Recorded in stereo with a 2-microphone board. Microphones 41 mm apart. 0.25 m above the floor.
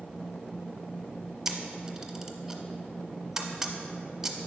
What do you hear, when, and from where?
1.4 s a camera shutter: 10° right (ahead or behind), 0.9 m